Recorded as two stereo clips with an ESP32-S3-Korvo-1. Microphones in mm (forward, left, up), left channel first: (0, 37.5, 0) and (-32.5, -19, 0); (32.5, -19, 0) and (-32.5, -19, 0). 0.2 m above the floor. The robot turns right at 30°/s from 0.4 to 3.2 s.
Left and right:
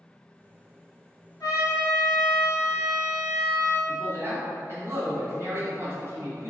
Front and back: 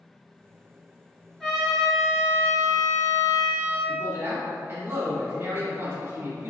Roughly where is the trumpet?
Left.